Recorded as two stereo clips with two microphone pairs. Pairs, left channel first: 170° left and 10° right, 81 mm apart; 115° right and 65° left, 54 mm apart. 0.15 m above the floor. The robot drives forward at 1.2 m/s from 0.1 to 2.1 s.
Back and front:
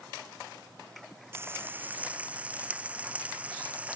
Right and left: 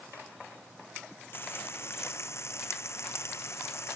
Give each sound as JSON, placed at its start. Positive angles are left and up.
{"t": 1.3, "sound": "frying", "azimuth_deg": -70}